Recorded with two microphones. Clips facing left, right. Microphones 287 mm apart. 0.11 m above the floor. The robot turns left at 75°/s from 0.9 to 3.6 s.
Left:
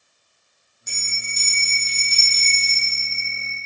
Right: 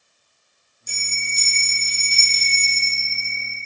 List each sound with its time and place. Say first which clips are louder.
0.9 s a bell: right 1 dB; 95° left, 5 m; by 3.6 s 105° right, 5 m